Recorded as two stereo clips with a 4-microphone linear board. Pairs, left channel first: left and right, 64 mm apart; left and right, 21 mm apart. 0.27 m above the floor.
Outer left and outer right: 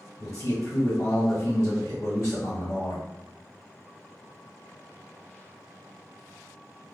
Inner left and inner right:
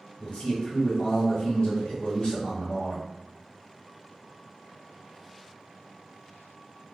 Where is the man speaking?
45° left (ahead or behind), 1.3 m.